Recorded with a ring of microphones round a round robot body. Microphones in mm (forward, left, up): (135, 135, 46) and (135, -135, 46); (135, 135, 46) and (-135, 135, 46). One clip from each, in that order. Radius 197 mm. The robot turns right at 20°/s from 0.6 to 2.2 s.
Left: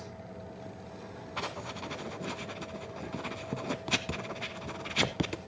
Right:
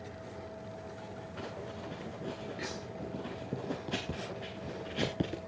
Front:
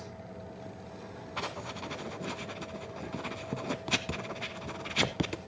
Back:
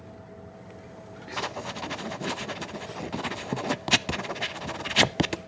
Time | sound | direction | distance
1.4 | writing | 120° left | 0.7 m